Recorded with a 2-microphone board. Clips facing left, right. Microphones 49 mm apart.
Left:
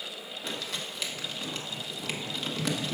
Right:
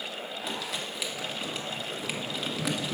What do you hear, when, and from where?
0.4 s crumpling: 5° right (ahead or behind), 1.1 m